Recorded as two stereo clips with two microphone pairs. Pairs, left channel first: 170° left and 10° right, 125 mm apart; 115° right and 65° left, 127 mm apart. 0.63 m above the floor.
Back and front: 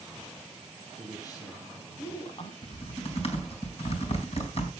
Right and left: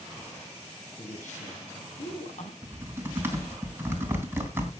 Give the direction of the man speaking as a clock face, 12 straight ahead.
4 o'clock.